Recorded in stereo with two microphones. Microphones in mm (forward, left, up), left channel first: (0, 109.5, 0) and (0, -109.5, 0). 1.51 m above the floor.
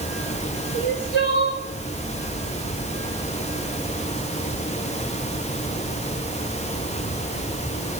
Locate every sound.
0.7 s crying: 70° left (ahead or behind), 5.5 m